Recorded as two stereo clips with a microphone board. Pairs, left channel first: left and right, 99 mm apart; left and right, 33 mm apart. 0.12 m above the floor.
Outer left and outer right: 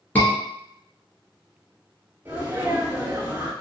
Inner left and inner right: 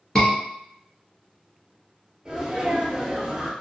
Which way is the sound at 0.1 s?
20° left (ahead or behind).